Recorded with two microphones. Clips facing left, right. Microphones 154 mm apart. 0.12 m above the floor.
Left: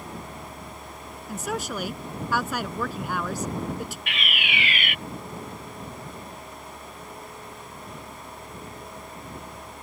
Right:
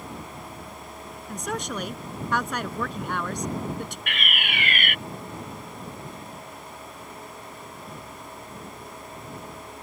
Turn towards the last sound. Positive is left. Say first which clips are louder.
# even
turn(degrees=-50)  # may be behind; listen again after turning